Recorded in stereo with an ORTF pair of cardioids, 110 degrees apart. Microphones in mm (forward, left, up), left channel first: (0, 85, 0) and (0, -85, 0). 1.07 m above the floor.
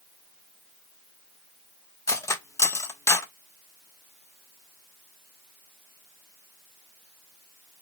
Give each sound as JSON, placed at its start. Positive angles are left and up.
{"t": 2.1, "sound": "cutlery clinking", "azimuth_deg": 15, "distance_m": 1.1}